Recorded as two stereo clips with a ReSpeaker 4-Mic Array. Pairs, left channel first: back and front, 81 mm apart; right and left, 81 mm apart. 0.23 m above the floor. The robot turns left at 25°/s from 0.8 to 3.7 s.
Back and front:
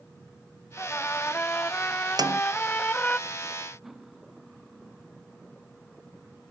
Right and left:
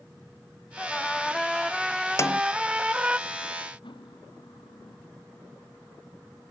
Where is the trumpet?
160° right; by 3.2 s 140° left.